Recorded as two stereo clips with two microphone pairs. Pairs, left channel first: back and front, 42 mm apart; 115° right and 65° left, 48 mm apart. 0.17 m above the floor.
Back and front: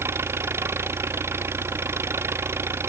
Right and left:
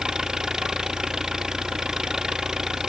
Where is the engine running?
10° right.